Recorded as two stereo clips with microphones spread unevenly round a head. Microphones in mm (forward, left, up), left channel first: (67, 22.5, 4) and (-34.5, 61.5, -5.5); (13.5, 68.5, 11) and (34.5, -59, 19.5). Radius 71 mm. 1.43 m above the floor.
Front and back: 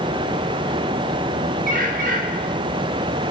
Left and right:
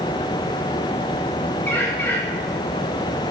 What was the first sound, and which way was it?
A bird, 175° left.